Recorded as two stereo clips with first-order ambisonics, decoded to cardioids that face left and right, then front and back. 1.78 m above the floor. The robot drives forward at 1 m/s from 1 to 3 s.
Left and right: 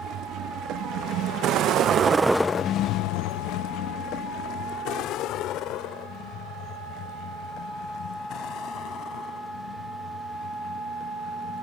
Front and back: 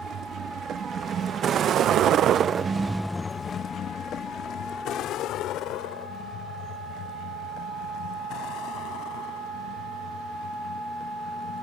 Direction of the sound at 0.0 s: 130° right.